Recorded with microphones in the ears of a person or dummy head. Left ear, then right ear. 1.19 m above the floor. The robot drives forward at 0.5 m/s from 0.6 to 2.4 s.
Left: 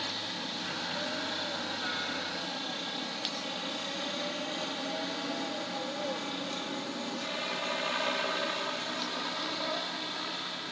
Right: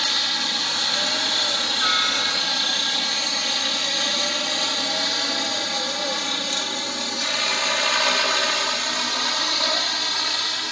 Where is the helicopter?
45° right (ahead or behind); by 10.7 s 65° right (ahead or behind).